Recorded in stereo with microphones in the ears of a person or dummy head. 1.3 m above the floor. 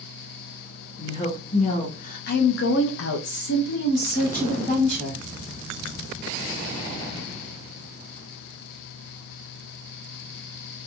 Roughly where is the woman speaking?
Left.